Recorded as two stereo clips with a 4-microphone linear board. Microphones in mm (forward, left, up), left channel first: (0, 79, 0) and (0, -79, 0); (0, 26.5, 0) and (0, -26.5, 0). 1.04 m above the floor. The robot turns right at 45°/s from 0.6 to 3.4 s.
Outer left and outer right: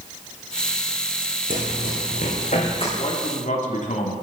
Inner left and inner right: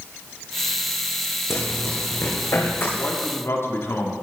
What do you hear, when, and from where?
1.5 s running footsteps: 70° left (ahead or behind), 4 m; by 2.9 s 35° left (ahead or behind), 5 m
3.0 s a man speaking: 40° left (ahead or behind), 2.5 m; by 4.1 s 60° left (ahead or behind), 2.5 m